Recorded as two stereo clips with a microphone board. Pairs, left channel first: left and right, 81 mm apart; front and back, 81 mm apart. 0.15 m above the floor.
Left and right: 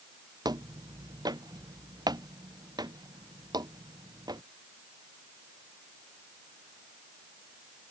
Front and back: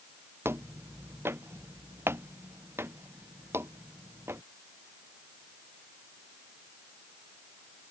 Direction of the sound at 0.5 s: 120° right.